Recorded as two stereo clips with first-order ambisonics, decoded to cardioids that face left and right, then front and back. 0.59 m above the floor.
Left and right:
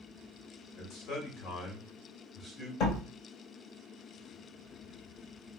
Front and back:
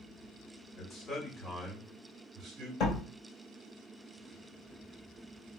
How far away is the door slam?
About 2 m.